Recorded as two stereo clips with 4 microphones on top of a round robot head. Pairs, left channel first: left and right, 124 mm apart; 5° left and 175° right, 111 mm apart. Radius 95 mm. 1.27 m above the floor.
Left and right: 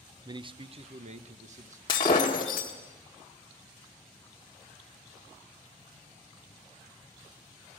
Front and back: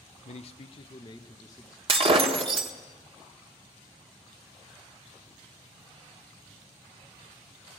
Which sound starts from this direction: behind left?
Breaking glass, at 1.9 s.